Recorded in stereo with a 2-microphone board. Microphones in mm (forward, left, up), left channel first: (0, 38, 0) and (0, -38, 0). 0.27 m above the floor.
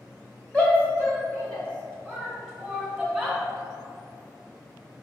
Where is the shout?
20° left (ahead or behind), 1.8 m; by 3.4 s 10° left (ahead or behind), 3 m.